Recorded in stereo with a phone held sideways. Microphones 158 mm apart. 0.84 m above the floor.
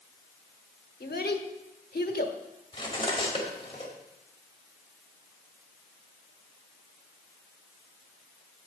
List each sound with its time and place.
1.0 s a child speaking: 80° left, 1.2 m
2.7 s cutlery clinking: 35° left (ahead or behind), 2 m